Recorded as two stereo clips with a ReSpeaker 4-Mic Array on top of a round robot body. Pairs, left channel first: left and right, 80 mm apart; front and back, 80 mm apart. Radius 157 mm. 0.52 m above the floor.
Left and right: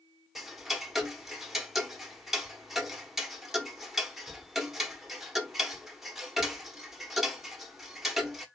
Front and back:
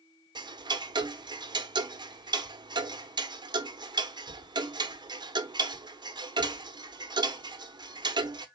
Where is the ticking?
175° right, 1.0 m.